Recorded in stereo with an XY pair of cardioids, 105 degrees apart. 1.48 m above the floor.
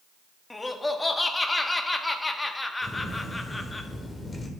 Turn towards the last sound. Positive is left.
turn(degrees=20)